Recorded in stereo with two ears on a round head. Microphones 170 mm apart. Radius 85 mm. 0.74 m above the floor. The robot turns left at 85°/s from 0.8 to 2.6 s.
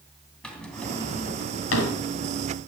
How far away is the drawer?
About 2.5 m.